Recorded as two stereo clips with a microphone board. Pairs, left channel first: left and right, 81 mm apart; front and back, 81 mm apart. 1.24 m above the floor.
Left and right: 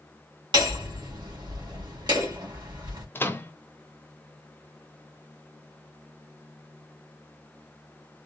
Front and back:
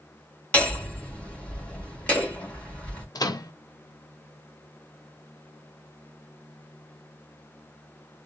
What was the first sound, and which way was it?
Hammering, 70° right.